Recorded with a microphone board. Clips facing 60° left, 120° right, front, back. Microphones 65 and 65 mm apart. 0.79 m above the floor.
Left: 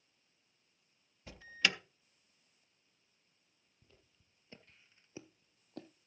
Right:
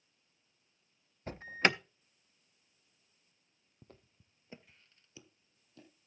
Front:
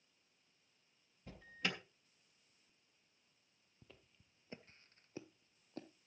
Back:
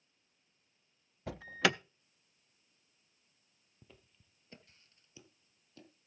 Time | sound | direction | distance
1.3 | an alarm | 170° right | 0.5 m
3.8 | footsteps | 95° right | 1.5 m